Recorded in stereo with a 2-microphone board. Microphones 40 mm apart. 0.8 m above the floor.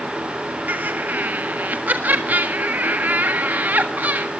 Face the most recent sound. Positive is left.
turn(degrees=-50)  # may be behind; listen again after turning